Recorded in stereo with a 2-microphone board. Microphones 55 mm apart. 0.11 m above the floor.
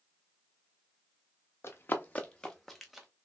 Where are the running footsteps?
45° left (ahead or behind), 1.0 m; by 3.1 s 5° right (ahead or behind), 1.1 m.